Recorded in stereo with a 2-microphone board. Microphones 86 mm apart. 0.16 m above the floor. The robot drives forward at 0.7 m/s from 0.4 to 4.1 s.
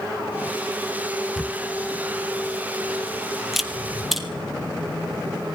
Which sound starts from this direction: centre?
A camera shutter, at 1.4 s.